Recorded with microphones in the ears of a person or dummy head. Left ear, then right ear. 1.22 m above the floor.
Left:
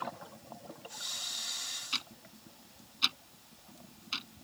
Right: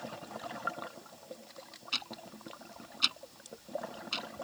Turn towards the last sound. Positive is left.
turn(degrees=5)  # may be behind; listen again after turning